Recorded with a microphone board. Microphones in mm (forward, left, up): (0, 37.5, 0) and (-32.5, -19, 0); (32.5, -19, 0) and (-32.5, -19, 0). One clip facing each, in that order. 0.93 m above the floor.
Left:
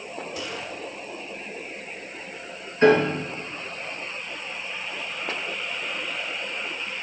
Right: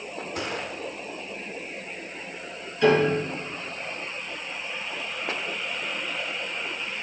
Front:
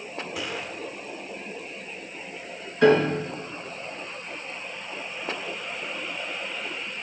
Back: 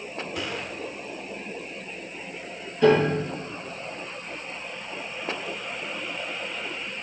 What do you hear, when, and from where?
0.3 s a gunshot: 85° right, 0.9 m
2.8 s a piano: 10° left, 3.5 m